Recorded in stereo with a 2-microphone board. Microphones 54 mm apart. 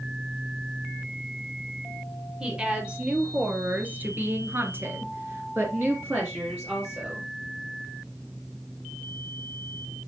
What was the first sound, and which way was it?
A woman speaking, 20° right (ahead or behind).